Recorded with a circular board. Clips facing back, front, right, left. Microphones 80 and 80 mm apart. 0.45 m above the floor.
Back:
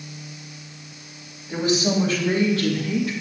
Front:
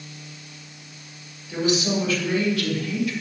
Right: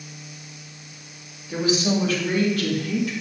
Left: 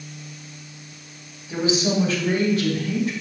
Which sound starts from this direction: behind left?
A woman speaking, at 1.5 s.